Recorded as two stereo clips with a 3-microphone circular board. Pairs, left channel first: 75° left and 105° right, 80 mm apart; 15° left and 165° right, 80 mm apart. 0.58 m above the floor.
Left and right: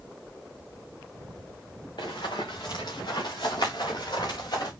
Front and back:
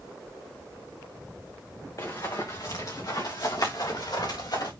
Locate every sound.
2.0 s running footsteps: 60° left, 3 m; by 4.7 s 45° left, 5 m